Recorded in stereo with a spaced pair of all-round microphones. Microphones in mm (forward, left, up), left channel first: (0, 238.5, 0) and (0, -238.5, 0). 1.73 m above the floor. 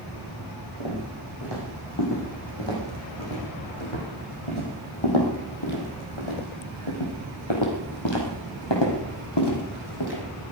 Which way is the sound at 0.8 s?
50° left (ahead or behind).